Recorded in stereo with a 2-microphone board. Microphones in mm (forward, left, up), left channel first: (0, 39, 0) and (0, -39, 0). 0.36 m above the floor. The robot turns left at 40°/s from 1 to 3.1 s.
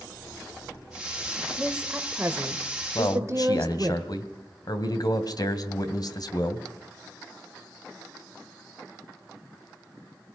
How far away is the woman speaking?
About 1.1 m.